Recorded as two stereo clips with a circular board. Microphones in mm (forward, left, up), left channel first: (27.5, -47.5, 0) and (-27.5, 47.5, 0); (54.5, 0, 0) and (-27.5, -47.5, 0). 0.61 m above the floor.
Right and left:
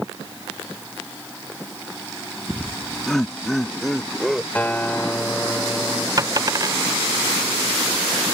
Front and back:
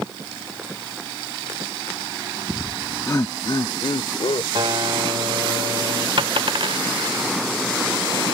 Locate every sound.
2.5 s laughter: 130° right; by 4.5 s 30° left
4.5 s a guitar: 135° right
6.2 s a dropped coin: 175° left